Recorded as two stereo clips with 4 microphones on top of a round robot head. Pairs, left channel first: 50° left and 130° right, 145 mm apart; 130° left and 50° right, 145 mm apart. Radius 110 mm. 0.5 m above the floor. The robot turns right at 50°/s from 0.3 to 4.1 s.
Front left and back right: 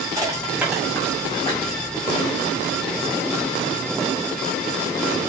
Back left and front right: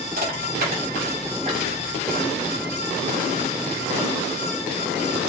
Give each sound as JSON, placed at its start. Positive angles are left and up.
{"t": 0.2, "sound": "crushing", "azimuth_deg": -65, "distance_m": 5.0}